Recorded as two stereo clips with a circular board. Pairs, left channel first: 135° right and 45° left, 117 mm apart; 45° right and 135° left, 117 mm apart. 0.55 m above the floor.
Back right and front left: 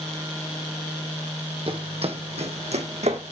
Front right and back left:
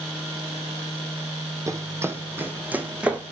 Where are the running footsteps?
75° left, 1.1 m; by 3.2 s 55° left, 1.7 m.